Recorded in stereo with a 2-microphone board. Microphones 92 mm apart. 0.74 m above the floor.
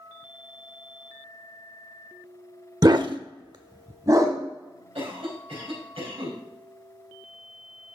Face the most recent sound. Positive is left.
turn(degrees=-80)